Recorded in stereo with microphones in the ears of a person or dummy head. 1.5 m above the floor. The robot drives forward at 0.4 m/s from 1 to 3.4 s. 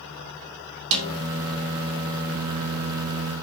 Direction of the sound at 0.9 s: 80° right.